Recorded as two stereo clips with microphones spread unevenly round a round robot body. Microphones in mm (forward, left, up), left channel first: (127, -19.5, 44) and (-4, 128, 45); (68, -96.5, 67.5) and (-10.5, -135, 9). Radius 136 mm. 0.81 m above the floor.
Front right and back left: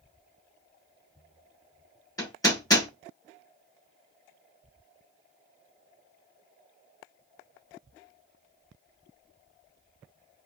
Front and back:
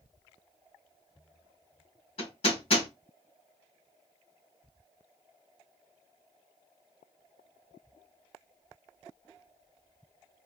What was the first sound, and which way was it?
Hammering, 25° left.